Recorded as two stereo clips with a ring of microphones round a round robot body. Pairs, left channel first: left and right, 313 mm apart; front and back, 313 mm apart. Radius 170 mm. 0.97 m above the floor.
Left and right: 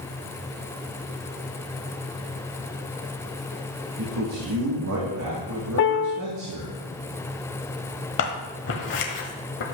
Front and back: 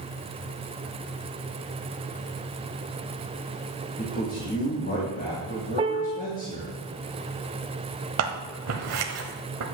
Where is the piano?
115° left, 0.5 m.